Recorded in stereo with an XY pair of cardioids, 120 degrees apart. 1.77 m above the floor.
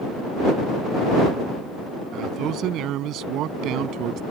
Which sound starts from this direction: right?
A man speaking, at 2.1 s.